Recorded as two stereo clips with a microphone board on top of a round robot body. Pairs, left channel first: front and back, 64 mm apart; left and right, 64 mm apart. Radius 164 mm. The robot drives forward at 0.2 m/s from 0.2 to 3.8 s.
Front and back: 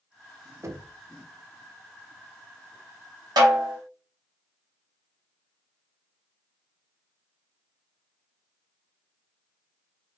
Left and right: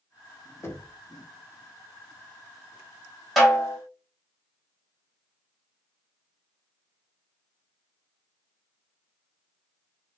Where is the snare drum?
Straight behind, 1.7 m.